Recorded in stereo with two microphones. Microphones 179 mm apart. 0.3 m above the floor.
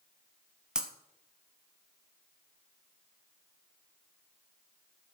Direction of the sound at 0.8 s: 5° right (ahead or behind).